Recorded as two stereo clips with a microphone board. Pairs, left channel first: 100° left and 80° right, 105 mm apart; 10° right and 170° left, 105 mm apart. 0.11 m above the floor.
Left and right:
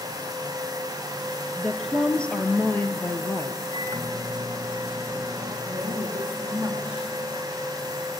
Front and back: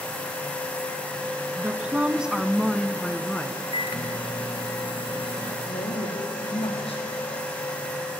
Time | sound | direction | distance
1.6 | a woman speaking | 170° right | 1.1 m
3.7 | a microwave | 20° right | 2 m
5.7 | a woman speaking | straight ahead | 6 m